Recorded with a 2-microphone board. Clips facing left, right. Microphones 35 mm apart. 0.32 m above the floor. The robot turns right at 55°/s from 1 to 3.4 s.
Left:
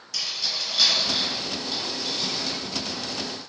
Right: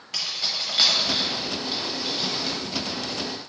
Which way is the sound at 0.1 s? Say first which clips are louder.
Right 1 dB; 50° right (ahead or behind).